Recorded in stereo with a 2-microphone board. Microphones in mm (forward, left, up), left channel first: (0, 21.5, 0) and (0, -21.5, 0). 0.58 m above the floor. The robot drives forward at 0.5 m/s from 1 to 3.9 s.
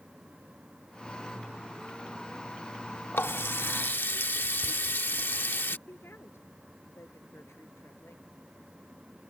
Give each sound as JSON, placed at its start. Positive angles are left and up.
{"t": 3.1, "sound": "a running tap", "side_deg": 60}
{"t": 5.9, "sound": "a woman speaking", "side_deg": 80}